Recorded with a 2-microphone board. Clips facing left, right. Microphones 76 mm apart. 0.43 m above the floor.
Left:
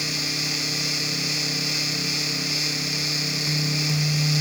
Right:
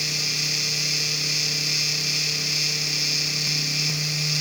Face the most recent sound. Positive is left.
No sound to turn to.